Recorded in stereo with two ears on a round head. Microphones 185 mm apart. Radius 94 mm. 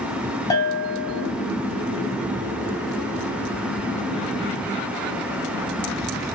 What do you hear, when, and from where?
0.5 s a bell: 15° left (ahead or behind), 0.7 m